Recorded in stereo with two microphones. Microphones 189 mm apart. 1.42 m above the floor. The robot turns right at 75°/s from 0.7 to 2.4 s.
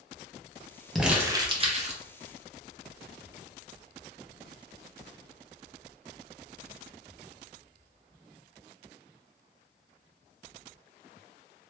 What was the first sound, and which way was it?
Crumpling, straight behind.